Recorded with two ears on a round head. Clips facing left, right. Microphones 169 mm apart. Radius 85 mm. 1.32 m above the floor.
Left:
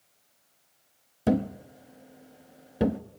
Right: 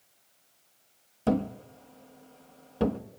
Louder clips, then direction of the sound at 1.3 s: Left 2 dB; 15° left (ahead or behind).